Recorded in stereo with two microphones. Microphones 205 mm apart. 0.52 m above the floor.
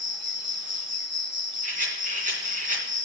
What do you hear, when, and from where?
0.0 s an insect: 70° right (ahead or behind), 1.0 m
1.6 s a rattle: 40° right (ahead or behind), 2.5 m